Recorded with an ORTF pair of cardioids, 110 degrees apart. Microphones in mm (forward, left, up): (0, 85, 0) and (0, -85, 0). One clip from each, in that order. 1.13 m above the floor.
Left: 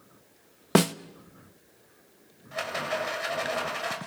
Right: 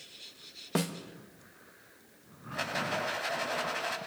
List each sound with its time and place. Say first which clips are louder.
0.8 s a snare drum: left 10 dB; 55° left, 1.0 m
2.5 s a rattle: left 2 dB; 45° left, 6.5 m